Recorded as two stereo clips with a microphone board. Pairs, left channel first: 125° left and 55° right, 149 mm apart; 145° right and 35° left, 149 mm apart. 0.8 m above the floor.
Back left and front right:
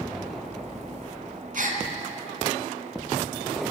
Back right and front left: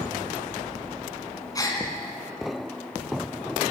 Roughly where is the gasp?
Right.